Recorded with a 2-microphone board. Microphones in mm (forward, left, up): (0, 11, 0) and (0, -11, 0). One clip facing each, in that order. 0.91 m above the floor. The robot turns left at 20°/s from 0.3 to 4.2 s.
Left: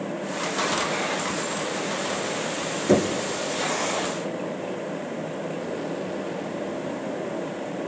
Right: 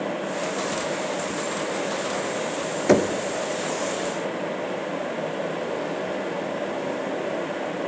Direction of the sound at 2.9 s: 35° right (ahead or behind).